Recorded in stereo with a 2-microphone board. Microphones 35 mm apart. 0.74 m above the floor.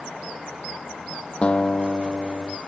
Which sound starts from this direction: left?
A guitar, at 1.4 s.